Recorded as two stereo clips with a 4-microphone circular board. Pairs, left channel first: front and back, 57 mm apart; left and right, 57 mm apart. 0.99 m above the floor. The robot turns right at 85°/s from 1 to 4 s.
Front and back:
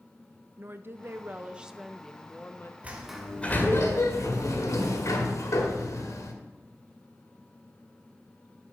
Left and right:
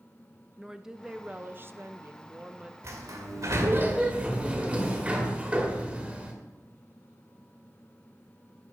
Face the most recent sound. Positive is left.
turn(degrees=-20)